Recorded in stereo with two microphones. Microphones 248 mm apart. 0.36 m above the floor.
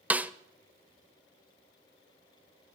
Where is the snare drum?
5° right (ahead or behind), 0.5 m.